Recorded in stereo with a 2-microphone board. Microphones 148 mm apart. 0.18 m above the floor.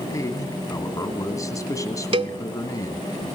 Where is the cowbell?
40° right (ahead or behind), 0.8 m.